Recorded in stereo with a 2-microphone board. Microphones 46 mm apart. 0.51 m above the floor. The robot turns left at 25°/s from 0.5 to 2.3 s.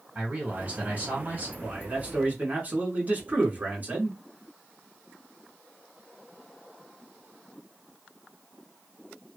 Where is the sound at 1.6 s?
35° right (ahead or behind), 1.4 m; by 4.2 s 40° right (ahead or behind), 1.4 m.